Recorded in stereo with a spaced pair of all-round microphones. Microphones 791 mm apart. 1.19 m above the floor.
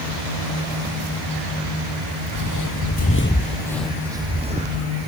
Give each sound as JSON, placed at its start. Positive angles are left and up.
{"t": 2.3, "sound": "footsteps", "side_deg": 25}